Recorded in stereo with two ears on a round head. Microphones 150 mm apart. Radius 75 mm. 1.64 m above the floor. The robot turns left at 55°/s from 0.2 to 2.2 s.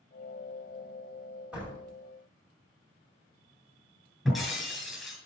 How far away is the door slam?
About 6 m.